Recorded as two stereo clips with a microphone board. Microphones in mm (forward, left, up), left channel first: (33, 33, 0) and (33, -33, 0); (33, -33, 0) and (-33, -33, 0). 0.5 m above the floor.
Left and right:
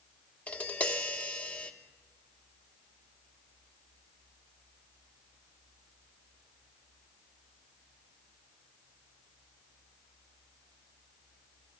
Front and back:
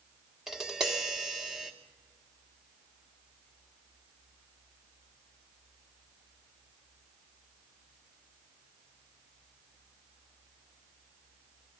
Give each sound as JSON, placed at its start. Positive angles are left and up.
{"t": 0.5, "sound": "tapping", "azimuth_deg": 110, "distance_m": 1.1}